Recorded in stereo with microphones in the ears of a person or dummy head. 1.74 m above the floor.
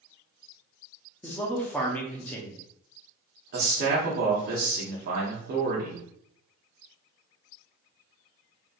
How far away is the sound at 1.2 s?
About 0.7 m.